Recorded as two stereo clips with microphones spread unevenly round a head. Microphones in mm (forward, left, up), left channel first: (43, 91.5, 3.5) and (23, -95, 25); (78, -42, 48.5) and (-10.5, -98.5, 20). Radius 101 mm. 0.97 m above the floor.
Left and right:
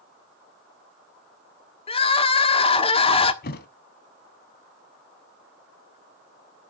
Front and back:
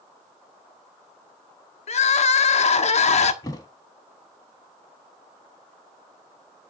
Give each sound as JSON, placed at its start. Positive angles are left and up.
{"t": 1.9, "sound": "crying", "azimuth_deg": 20, "distance_m": 1.4}
{"t": 3.4, "sound": "a thud", "azimuth_deg": 60, "distance_m": 1.1}